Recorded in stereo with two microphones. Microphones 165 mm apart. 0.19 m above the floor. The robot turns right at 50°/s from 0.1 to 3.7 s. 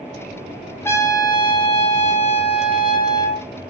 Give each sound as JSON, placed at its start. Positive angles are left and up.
{"t": 0.8, "sound": "a trumpet", "azimuth_deg": 25, "distance_m": 0.6}